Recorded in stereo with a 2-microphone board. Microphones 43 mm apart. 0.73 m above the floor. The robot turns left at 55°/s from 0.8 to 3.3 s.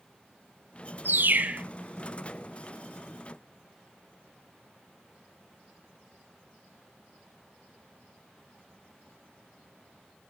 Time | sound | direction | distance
1.1 | a bird | 120° right | 0.9 m